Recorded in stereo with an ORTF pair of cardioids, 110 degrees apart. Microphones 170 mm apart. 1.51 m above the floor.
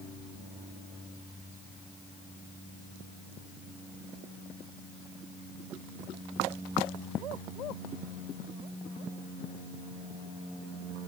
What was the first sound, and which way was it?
Only background noise.